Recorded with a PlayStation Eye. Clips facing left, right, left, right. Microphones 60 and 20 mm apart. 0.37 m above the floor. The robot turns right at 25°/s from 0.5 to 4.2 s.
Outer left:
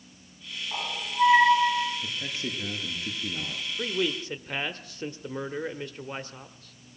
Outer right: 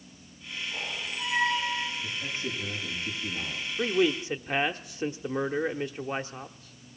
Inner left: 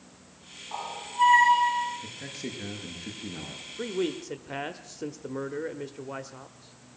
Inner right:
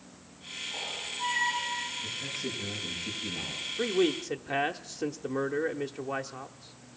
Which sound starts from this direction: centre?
A man speaking, at 3.8 s.